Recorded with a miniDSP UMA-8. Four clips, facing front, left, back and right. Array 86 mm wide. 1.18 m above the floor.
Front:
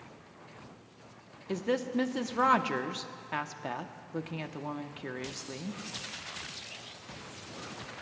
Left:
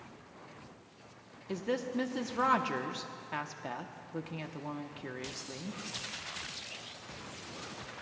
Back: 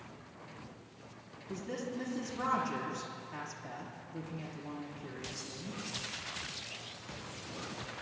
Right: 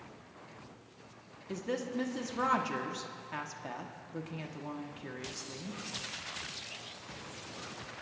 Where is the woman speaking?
15° left, 0.9 m.